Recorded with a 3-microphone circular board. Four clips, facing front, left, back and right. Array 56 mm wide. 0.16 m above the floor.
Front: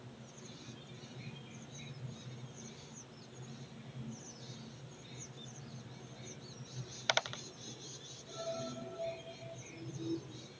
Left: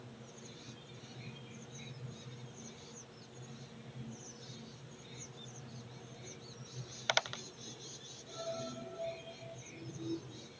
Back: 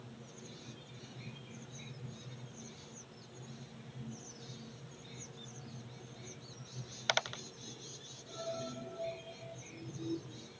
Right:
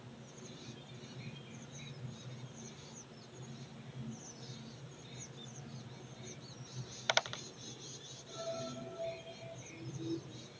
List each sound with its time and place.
Only background noise.